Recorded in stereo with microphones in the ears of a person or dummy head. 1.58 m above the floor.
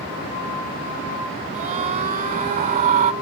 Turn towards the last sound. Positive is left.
turn(degrees=-40)  # may be behind; listen again after turning